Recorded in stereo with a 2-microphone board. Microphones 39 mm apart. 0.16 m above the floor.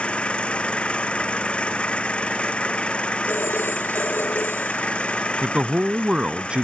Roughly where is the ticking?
No ticking in this recording.